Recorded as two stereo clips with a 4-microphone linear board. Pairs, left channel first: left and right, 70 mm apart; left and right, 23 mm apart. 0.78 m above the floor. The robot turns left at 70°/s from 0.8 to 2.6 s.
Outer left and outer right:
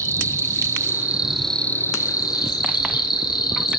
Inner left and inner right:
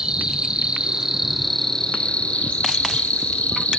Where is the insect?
140° right, 8 m; by 3.8 s 95° left, 8 m.